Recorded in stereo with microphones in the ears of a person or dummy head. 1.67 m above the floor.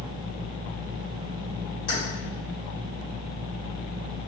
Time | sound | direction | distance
1.9 | keys jangling | 45° left (ahead or behind) | 1.8 m